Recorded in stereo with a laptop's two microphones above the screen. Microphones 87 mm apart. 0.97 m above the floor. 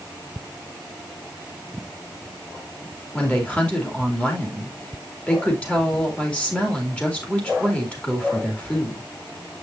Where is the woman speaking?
15° left (ahead or behind), 2 m.